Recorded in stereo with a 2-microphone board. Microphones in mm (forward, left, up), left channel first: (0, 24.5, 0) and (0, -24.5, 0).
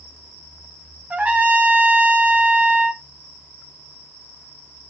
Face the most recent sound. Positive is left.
turn(degrees=-35)  # may be behind; listen again after turning